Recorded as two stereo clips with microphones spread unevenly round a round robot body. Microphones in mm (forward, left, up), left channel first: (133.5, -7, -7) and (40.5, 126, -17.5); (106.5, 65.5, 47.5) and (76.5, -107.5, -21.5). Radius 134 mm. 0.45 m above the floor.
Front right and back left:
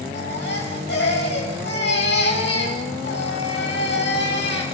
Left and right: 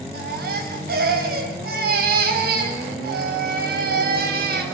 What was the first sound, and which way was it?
A baby crying, 100° right.